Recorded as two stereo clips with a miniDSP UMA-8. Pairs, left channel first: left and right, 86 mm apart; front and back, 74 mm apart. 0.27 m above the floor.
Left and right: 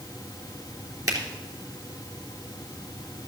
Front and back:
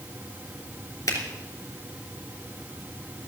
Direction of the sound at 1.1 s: 45° right.